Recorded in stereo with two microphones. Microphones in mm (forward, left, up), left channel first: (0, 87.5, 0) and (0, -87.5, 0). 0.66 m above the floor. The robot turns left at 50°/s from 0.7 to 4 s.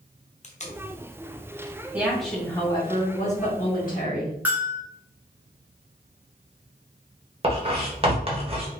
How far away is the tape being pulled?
About 0.7 m.